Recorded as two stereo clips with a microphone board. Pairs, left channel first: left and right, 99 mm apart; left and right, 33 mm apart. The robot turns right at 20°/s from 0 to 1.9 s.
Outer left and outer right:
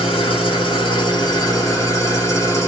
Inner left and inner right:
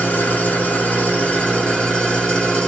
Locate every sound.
0.0 s an engine running: 105° left, 1.2 m; by 2.7 s 145° left, 1.2 m